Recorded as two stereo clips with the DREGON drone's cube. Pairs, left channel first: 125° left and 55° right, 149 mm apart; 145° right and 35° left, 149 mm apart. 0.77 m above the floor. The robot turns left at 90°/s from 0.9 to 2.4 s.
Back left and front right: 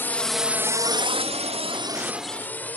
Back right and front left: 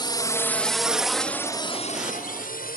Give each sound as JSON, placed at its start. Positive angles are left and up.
{"t": 0.0, "sound": "a drone", "azimuth_deg": -170}